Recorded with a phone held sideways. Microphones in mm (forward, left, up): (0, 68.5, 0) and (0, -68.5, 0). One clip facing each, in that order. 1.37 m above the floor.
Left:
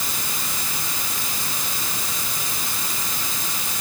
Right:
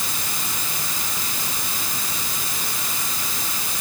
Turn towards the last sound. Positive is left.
No sound to turn to.